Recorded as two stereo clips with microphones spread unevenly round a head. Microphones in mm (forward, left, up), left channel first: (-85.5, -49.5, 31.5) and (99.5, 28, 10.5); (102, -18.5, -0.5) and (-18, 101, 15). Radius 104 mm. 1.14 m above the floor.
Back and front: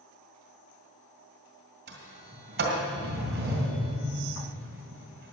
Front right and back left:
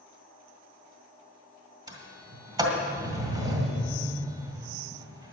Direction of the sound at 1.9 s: 70° left.